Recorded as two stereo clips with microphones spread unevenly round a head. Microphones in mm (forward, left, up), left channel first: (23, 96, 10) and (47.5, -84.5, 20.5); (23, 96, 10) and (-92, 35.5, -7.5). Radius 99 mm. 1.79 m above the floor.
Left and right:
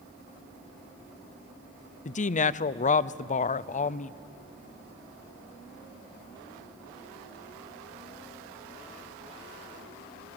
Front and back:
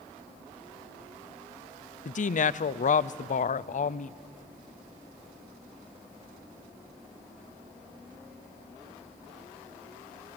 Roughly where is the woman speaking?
Ahead left.